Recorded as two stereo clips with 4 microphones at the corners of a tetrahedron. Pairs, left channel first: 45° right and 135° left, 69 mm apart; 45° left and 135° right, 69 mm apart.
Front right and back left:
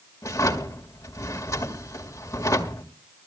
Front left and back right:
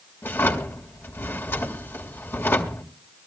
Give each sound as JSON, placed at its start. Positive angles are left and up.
{"t": 0.2, "sound": "a drawer", "azimuth_deg": -5, "distance_m": 1.9}